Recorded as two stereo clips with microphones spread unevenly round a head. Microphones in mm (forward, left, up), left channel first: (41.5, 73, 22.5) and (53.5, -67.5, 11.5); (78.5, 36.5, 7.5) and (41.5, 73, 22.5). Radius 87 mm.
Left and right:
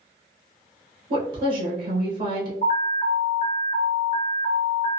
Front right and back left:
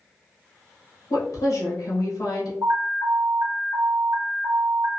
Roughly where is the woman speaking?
Ahead right.